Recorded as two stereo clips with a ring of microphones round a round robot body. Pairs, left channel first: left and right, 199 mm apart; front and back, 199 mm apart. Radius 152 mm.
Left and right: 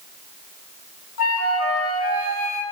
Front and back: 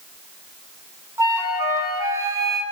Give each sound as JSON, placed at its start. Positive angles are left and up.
{"t": 1.2, "sound": "a flute", "azimuth_deg": 105, "distance_m": 8.5}